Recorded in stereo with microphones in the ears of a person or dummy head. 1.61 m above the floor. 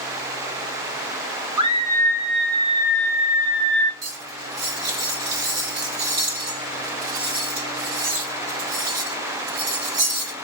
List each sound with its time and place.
1.6 s a scream: 35° right (ahead or behind), 1.3 m; by 3.9 s 75° right (ahead or behind), 2.5 m
4.0 s cutlery clinking: 60° right (ahead or behind), 1.4 m